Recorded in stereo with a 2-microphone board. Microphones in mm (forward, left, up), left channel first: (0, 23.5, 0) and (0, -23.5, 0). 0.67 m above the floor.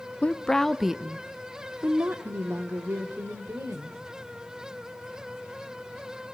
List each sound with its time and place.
0.2 s a woman speaking: 30° left (ahead or behind), 0.8 m; by 4.0 s 75° right (ahead or behind), 2.5 m